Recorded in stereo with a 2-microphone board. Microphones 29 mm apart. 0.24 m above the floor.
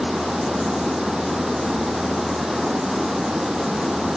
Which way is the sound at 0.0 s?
15° right (ahead or behind).